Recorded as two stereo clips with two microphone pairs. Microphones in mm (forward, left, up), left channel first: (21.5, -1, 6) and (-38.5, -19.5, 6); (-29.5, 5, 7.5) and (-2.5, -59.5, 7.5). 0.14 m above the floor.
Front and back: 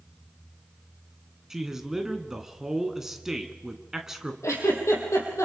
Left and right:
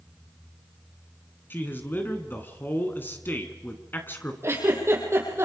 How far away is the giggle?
About 4.5 m.